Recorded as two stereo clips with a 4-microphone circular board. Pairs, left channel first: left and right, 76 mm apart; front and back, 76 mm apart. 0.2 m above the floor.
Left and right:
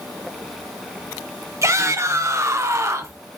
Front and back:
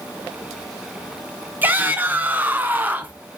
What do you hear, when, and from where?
1.6 s a shout: 120° right, 1.9 m